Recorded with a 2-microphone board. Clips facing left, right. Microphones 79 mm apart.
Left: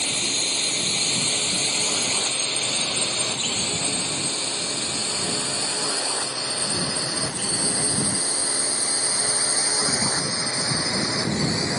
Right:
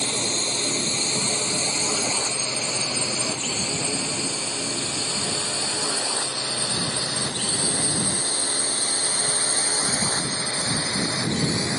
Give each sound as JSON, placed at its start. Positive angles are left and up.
{"t": 0.0, "sound": "a drone", "side_deg": -25}